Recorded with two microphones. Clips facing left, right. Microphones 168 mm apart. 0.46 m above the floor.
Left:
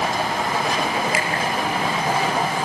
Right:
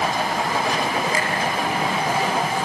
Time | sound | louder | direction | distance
1.1 | a finger snap | even | 80° left | 6.5 m